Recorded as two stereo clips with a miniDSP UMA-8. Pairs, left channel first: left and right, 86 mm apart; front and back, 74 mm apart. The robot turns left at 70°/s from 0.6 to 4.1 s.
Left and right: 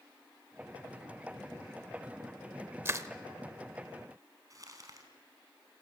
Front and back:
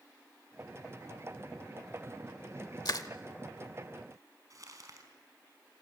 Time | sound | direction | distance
2.9 | crushing | 30° right | 1.0 m
4.5 | crumpling | 140° right | 4 m